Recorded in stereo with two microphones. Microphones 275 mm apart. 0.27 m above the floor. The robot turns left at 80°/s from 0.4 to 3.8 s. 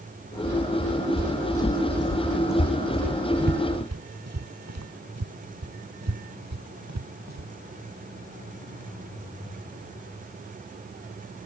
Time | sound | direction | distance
1.2 | footsteps | 45° right (ahead or behind) | ?